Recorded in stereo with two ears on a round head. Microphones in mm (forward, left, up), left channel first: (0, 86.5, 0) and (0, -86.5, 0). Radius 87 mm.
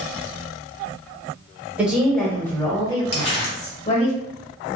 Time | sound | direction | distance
1.8 | a woman speaking | 10° right (ahead or behind) | 1.1 m
3.1 | crumpling | 30° left (ahead or behind) | 1.5 m